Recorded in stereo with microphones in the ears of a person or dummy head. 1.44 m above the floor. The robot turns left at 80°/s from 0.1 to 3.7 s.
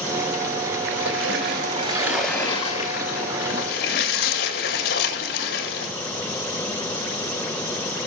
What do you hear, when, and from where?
0.9 s a splash: 75° right, 5.5 m; by 5.9 s 60° left, 5.5 m